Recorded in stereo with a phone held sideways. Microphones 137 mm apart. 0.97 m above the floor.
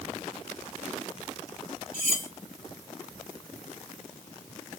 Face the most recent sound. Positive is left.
turn(degrees=85)